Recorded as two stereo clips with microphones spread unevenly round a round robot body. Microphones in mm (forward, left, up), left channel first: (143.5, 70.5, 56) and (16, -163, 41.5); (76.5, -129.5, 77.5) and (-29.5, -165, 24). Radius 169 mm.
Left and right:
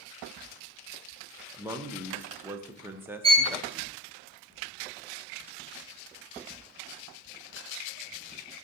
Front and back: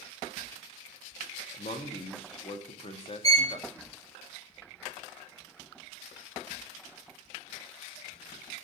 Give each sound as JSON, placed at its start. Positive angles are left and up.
{"t": 1.5, "sound": "a man speaking", "azimuth_deg": -40, "distance_m": 0.9}
{"t": 3.2, "sound": "a violin", "azimuth_deg": -50, "distance_m": 1.4}